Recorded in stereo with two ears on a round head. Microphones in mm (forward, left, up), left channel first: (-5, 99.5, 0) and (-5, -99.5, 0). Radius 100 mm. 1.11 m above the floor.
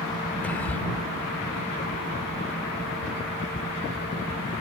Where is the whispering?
10° left (ahead or behind).